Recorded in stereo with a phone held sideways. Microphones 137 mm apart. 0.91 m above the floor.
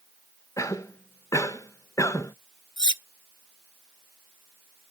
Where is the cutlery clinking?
35° left (ahead or behind), 0.6 m.